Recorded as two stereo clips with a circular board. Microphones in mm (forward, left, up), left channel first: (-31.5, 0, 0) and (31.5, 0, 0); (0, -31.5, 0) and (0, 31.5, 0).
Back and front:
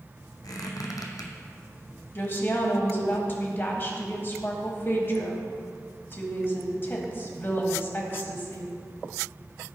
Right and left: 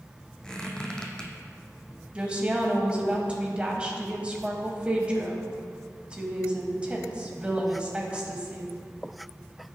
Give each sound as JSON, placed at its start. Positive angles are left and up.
{"t": 0.4, "sound": "a squeak", "azimuth_deg": -165, "distance_m": 1.4}
{"t": 2.1, "sound": "a woman speaking", "azimuth_deg": 155, "distance_m": 1.6}